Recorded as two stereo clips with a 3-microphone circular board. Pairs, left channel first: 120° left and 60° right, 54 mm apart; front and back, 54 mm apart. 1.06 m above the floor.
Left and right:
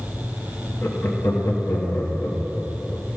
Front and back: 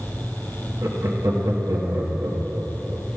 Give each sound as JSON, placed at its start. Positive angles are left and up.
{"t": 0.8, "sound": "laughter", "azimuth_deg": 160, "distance_m": 1.4}